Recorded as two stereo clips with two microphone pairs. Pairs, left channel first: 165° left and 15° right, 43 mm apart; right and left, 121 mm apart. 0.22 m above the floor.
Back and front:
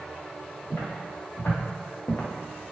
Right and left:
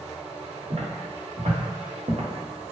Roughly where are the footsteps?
Behind left.